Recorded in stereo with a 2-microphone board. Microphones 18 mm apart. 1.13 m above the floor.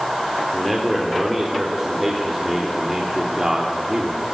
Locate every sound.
0.5 s a man speaking: centre (ahead or behind), 3.5 m; by 4.3 s 40° right (ahead or behind), 3 m